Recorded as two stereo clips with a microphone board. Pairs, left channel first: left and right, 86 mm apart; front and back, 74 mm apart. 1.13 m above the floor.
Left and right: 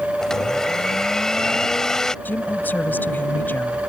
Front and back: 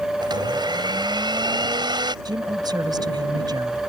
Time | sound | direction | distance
0.2 | a blender | 175° left | ?
2.2 | a woman speaking | 160° left | ?